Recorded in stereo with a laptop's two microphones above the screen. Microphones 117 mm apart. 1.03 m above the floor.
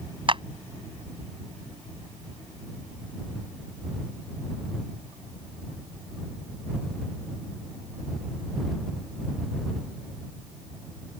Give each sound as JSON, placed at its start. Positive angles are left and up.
{"t": 0.3, "sound": "a clap", "side_deg": -45}